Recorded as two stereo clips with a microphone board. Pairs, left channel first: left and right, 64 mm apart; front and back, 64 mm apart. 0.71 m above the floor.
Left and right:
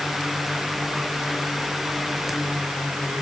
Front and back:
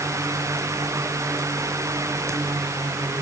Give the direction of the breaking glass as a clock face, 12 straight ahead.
I don't hear breaking glass.